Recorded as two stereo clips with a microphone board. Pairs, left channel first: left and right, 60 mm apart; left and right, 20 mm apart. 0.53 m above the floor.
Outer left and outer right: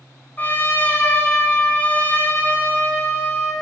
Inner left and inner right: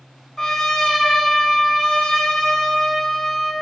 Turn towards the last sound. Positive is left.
turn(degrees=30)  # may be behind; listen again after turning